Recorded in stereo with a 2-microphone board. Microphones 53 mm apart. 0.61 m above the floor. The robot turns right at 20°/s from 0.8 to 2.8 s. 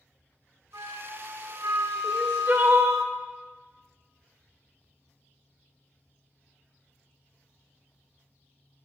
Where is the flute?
115° right, 0.5 m; by 3.0 s 75° right, 0.5 m.